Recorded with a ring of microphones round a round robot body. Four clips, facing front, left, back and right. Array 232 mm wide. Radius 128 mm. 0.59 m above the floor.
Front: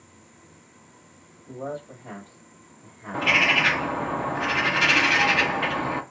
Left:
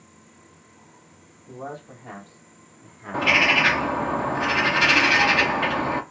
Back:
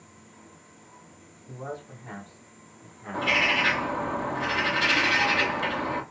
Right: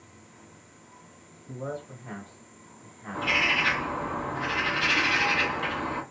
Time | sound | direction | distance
1.5 | a man speaking | 75° left | 2 m
3.1 | a bird | 65° left | 0.6 m